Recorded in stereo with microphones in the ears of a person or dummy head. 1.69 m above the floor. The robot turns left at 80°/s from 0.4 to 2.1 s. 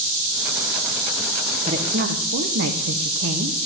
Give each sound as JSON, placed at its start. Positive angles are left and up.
{"t": 1.6, "sound": "a woman speaking", "azimuth_deg": -30, "distance_m": 1.3}